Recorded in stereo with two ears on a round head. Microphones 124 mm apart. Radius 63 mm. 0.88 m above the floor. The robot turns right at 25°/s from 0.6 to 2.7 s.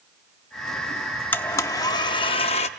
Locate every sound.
1.3 s a blender: 15° left, 0.7 m; by 2.7 s 50° left, 0.7 m